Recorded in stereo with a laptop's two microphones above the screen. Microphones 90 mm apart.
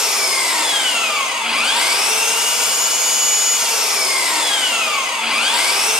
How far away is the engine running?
About 0.8 m.